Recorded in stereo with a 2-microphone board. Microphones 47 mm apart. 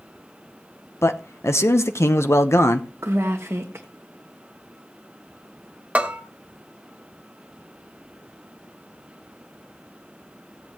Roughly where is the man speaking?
Left.